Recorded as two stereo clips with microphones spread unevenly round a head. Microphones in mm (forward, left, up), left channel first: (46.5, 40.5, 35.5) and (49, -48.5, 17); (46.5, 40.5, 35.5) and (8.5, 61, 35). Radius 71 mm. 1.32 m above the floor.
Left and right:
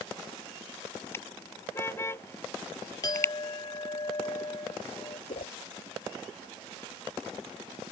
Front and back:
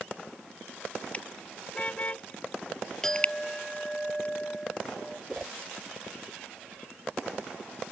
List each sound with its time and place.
1.1 s a car horn: 30° left
3.0 s a clink: 50° left
5.3 s a whoosh: 75° left